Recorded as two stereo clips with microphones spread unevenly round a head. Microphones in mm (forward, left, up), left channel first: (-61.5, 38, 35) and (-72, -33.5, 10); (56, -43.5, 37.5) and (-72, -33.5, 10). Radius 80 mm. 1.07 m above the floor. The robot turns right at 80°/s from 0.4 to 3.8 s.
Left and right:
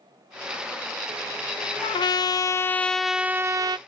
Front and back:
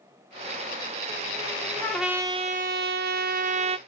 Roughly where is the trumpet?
Left.